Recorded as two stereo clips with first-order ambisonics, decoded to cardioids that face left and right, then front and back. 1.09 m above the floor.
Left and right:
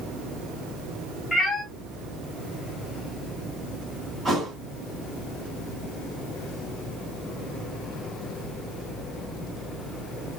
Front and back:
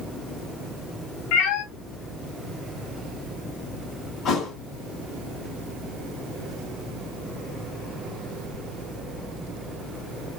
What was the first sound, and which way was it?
A cat meowing, 15° left.